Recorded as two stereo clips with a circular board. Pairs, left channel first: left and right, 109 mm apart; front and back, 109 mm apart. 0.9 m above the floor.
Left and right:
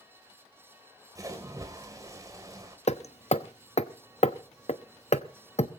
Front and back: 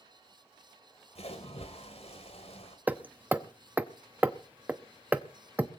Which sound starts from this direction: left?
Hammering, at 2.9 s.